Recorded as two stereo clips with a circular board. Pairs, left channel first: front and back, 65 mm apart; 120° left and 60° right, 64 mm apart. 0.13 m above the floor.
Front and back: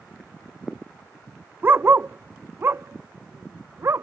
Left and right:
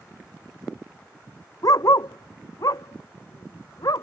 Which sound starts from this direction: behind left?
A dog barking, at 1.6 s.